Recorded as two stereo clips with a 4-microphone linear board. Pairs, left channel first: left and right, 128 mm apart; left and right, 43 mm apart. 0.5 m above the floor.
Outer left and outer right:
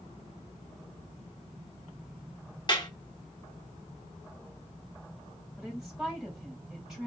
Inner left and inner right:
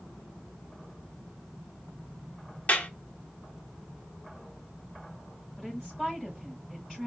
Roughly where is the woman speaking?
Centre.